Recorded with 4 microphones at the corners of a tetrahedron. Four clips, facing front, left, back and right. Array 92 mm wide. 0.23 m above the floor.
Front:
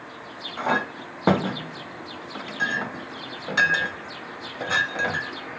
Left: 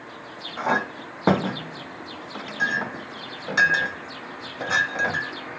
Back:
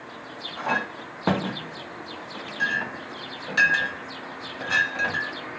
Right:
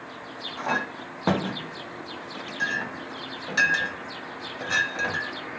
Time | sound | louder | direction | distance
0.6 | a clink | left 4 dB, front 2 dB | 60° left | 0.7 m